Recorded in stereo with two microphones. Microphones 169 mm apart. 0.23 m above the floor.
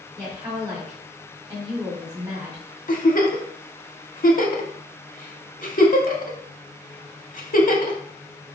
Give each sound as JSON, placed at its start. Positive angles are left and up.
{"t": 0.2, "sound": "a woman speaking", "side_deg": -30, "distance_m": 1.9}
{"t": 2.9, "sound": "a giggle", "side_deg": 55, "distance_m": 0.5}